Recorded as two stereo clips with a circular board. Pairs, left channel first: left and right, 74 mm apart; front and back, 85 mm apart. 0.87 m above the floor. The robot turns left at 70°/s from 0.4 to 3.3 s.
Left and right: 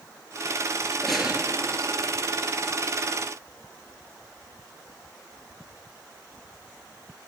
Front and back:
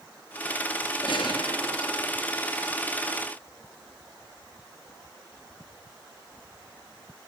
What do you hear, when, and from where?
1.0 s a gunshot: 5° left, 2.5 m; by 2.1 s 70° right, 2.5 m